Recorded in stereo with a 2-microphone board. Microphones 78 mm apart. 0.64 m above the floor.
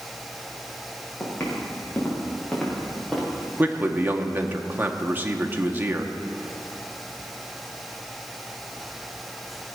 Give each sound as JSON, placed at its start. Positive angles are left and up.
{"t": 1.2, "sound": "footsteps", "side_deg": 30, "distance_m": 5.5}
{"t": 3.6, "sound": "a man speaking", "side_deg": -25, "distance_m": 1.0}